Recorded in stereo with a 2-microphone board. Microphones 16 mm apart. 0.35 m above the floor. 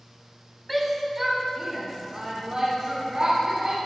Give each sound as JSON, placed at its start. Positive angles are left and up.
{"t": 0.7, "sound": "a shout", "side_deg": 5, "distance_m": 3.0}